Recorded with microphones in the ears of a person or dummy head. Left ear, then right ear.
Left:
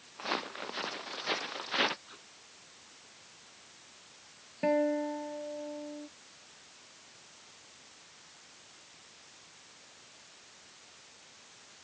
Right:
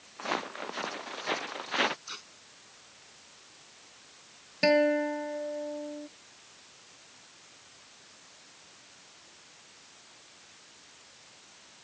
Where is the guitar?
75° right (ahead or behind).